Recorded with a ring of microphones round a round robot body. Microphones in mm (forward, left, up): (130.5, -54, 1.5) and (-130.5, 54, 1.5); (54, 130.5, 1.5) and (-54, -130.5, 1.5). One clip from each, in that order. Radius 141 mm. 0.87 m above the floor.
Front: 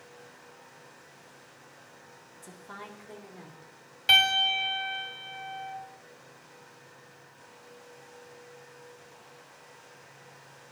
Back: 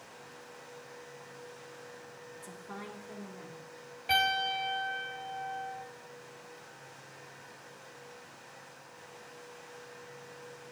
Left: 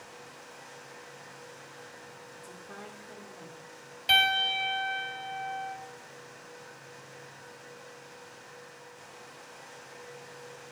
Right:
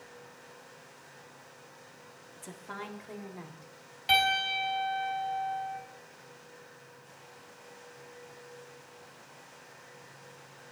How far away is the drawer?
No drawer in this recording.